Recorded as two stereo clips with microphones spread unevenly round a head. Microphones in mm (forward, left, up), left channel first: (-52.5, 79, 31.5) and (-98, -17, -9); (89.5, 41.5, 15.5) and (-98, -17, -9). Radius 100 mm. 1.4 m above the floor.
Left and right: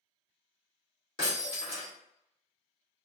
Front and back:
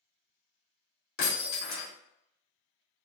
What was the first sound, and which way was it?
Breaking glass, 5° left.